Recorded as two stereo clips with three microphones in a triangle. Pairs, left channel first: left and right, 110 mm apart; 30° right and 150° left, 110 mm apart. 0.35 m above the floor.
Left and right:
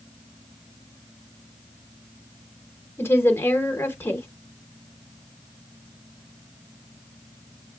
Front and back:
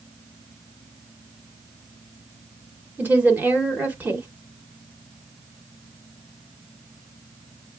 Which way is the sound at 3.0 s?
115° left.